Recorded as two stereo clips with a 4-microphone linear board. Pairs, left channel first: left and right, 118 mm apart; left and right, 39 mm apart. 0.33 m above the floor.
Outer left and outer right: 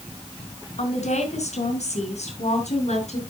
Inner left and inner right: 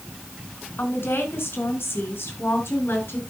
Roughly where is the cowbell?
No cowbell in this recording.